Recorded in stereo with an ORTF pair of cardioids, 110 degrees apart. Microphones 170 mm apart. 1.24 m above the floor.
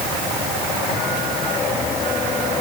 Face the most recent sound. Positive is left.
No sound to turn to.